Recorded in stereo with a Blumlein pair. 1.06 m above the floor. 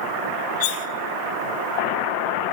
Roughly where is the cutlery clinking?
Ahead left.